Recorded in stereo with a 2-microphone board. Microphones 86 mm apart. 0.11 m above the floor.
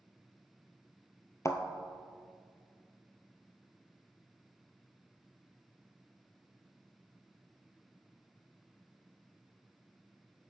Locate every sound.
1.4 s a thud: 35° left (ahead or behind), 0.6 m